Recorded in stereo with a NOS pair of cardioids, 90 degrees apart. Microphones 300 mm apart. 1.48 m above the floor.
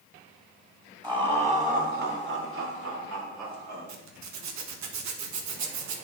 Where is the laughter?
15° right, 3 m; by 3.9 s 70° right, 3.5 m.